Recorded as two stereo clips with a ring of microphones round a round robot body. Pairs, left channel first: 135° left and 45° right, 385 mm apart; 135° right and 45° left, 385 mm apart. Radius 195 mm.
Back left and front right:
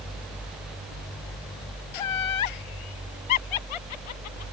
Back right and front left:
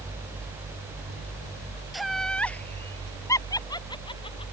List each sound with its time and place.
1.9 s laughter: 135° left; by 4.4 s 150° left